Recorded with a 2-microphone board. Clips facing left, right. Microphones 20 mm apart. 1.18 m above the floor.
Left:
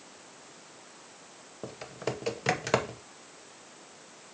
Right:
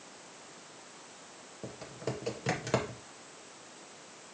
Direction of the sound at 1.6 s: 30° left (ahead or behind).